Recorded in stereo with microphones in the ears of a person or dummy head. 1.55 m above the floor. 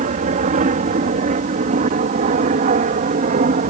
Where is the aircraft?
45° right (ahead or behind).